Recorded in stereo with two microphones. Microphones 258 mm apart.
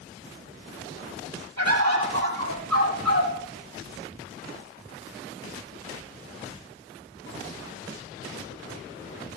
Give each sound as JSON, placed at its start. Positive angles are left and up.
{"t": 1.6, "sound": "a bird", "side_deg": -75, "distance_m": 5.5}